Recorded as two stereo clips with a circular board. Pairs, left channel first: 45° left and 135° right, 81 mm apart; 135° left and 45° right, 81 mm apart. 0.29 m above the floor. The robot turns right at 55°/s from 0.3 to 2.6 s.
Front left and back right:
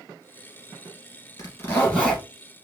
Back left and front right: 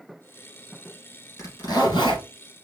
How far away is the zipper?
About 2 m.